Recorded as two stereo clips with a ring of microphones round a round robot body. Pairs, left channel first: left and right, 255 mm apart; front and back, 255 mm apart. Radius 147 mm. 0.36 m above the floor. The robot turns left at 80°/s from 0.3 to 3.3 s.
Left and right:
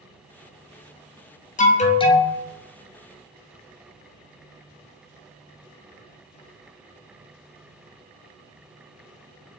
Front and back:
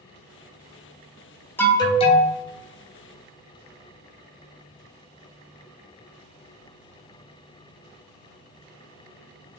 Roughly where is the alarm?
Left.